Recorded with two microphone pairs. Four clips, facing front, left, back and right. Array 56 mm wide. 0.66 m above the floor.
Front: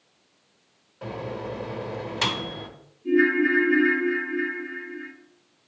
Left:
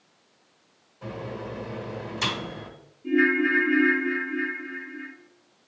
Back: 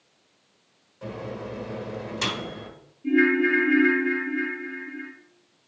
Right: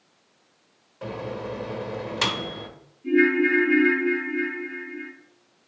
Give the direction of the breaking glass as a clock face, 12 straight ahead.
No breaking glass in this recording.